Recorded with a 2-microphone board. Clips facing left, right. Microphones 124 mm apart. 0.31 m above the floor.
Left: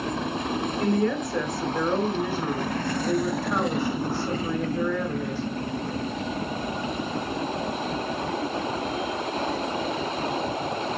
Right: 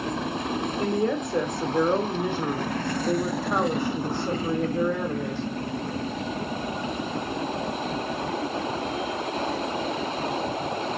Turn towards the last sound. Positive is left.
turn(degrees=-20)  # may be behind; listen again after turning